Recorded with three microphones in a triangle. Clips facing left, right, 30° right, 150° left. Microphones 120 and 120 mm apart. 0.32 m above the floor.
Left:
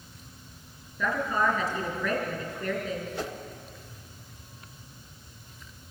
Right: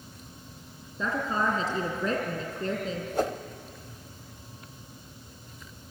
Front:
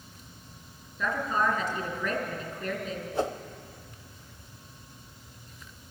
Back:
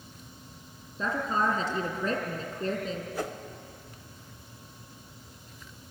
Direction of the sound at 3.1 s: 80° right.